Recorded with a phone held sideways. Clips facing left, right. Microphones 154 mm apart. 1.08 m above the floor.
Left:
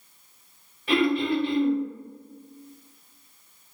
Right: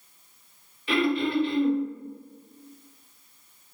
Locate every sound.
0.9 s throat clearing: 60° left (ahead or behind), 1.6 m